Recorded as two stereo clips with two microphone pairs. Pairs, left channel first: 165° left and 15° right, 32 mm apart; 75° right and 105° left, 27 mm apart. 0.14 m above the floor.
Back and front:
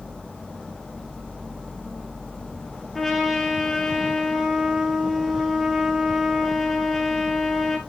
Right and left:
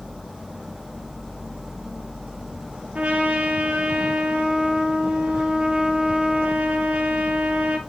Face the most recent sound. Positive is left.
turn(degrees=80)